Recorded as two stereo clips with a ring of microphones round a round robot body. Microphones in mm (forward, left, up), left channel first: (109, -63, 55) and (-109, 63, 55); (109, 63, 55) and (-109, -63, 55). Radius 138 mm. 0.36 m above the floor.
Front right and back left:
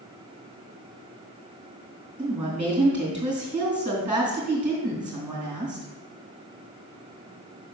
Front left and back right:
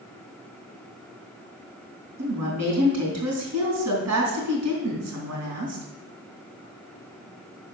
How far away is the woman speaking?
About 3.5 m.